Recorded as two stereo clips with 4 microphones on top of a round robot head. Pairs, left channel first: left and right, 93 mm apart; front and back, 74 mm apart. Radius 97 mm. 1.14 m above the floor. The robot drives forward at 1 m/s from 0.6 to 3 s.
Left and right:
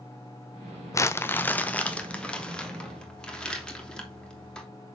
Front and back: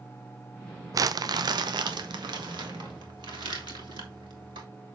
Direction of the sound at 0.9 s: 145° left.